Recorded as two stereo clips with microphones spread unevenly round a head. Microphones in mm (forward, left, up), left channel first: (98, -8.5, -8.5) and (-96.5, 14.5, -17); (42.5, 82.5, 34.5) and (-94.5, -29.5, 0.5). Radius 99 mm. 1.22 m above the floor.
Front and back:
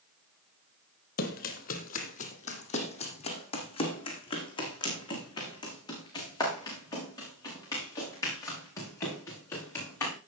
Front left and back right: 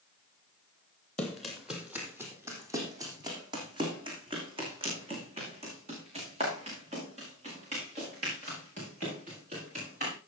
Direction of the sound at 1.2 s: 40° right.